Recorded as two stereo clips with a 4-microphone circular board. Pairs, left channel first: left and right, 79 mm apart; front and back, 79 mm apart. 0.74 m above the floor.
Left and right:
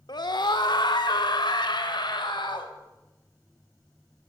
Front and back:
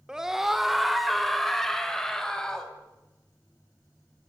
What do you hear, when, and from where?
0.1 s a scream: 100° left, 1.9 m; by 2.7 s 80° left, 4.5 m